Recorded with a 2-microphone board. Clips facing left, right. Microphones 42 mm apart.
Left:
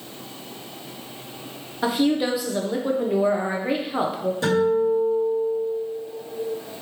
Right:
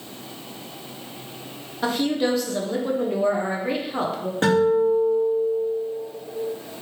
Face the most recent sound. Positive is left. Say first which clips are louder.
# right 2 dB
turn(degrees=-55)  # may be behind; listen again after turning